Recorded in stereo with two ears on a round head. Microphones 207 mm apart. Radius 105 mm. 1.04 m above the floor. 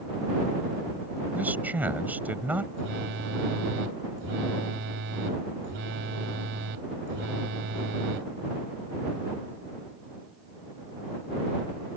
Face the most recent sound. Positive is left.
turn(degrees=-55)  # may be behind; listen again after turning